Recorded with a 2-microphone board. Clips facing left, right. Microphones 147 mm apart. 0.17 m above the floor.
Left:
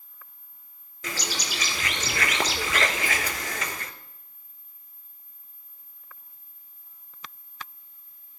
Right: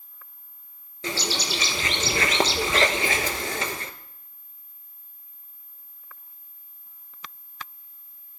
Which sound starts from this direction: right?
A bird, at 1.0 s.